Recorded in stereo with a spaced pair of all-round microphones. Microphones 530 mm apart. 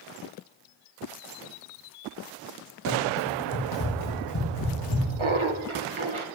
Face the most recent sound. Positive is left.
turn(degrees=-60)  # may be behind; listen again after turning